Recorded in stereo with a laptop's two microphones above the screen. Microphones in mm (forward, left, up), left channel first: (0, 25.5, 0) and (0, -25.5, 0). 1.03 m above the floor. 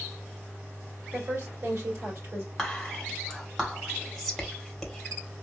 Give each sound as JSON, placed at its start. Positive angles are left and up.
{"t": 1.1, "sound": "a woman speaking", "side_deg": -70, "distance_m": 2.5}
{"t": 2.6, "sound": "whispering", "side_deg": -5, "distance_m": 1.3}